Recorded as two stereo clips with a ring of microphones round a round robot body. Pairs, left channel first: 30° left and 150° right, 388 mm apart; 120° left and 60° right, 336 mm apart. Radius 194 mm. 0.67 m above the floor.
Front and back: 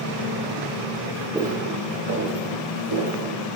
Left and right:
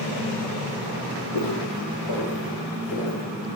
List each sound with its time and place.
1.3 s footsteps: 125° left, 1.5 m; by 3.6 s straight behind, 2.5 m